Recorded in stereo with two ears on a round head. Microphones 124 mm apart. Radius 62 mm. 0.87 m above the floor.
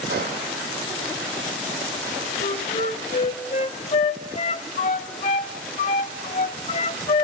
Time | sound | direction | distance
0.1 | a gunshot | 80° right | 10 m
2.4 | a flute | 50° left (ahead or behind) | 0.8 m